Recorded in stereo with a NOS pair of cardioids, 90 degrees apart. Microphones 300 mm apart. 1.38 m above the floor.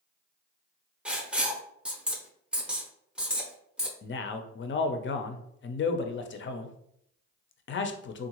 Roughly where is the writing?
Ahead.